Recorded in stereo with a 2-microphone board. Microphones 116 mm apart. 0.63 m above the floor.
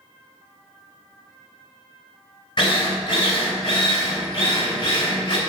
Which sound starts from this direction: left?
A drill, at 2.6 s.